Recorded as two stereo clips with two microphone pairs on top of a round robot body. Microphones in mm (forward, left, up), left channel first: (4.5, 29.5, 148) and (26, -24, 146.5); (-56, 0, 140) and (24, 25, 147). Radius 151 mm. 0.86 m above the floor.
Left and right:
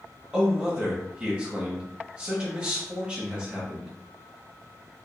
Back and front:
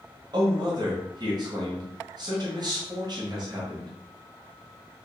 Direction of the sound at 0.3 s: Straight ahead.